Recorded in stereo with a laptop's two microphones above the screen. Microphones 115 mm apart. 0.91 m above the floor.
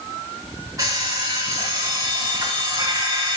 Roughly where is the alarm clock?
Right.